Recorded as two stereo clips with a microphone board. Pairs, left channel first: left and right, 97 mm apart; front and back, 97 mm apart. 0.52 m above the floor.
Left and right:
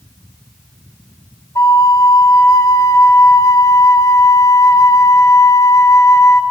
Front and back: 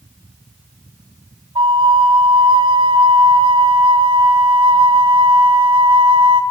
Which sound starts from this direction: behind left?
A flute, at 1.6 s.